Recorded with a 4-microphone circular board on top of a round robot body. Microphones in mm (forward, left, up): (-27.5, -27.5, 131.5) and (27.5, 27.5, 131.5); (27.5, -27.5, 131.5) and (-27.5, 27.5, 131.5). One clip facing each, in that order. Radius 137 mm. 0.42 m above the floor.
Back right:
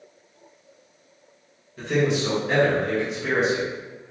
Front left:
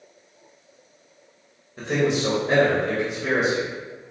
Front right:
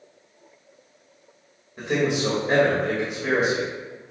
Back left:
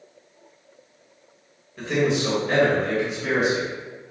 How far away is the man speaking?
About 1.5 m.